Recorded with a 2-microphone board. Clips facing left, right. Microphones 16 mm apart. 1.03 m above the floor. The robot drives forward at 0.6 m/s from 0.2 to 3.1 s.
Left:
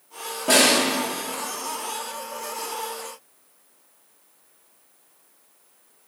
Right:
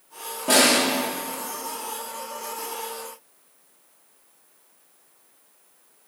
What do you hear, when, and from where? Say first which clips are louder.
0.5 s a snare drum: left 1 dB; 10° left (ahead or behind), 2.5 m